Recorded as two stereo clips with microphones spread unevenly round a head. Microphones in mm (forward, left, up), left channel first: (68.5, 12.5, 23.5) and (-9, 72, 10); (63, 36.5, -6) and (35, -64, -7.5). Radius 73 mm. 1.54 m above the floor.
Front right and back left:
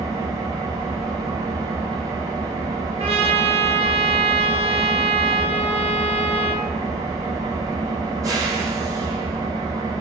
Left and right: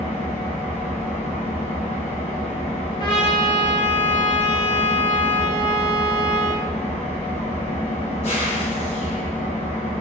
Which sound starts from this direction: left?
An engine running, at 0.0 s.